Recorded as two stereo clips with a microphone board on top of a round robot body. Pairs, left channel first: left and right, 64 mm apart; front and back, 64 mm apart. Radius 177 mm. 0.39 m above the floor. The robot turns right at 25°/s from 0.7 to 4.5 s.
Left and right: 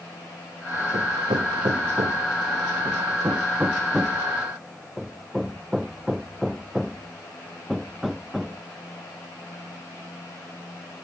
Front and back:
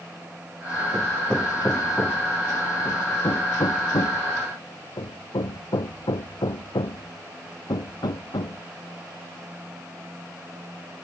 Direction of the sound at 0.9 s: 90° right.